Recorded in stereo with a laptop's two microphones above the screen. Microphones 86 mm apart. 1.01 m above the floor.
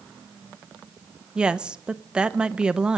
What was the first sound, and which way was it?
A woman speaking, 10° right (ahead or behind).